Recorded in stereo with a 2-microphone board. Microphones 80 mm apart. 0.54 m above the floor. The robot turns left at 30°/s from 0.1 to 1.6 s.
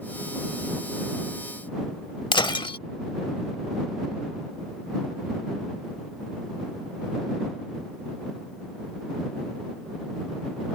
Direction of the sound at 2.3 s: 80° left.